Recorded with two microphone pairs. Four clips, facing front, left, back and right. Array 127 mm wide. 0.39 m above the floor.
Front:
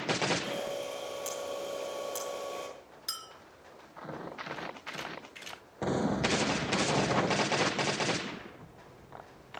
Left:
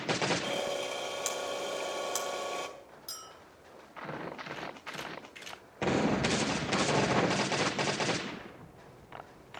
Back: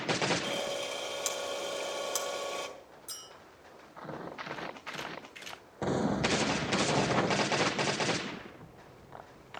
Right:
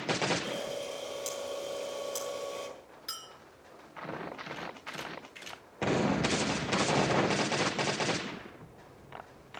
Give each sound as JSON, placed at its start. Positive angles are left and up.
{"t": 0.4, "sound": "a camera shutter", "azimuth_deg": 120, "distance_m": 3.0}
{"t": 3.1, "sound": "a clink", "azimuth_deg": -35, "distance_m": 3.0}